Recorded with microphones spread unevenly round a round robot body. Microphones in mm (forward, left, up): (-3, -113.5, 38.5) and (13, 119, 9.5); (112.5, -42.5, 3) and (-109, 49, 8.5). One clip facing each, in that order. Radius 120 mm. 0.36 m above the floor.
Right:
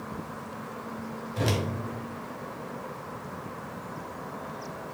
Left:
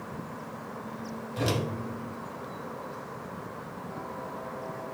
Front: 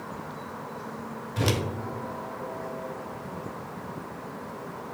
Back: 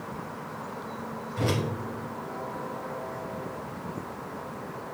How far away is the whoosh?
About 0.7 m.